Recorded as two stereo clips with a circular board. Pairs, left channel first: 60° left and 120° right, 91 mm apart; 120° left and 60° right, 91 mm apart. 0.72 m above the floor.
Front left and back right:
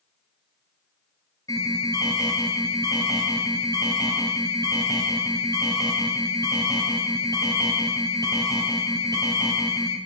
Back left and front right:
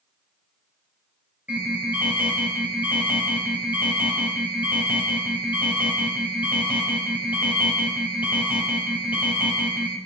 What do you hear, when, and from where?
1.5 s an alarm: 10° left, 5 m